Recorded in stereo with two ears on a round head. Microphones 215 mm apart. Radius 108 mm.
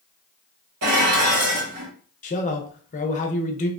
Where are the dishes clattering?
80° right, 1.2 m.